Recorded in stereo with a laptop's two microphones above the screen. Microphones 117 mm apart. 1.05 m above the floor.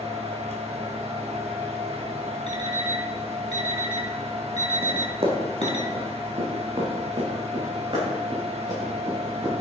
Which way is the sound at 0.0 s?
60° right (ahead or behind).